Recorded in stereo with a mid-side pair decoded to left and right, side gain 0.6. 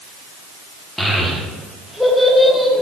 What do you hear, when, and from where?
1.0 s a child speaking: straight ahead, 1.0 m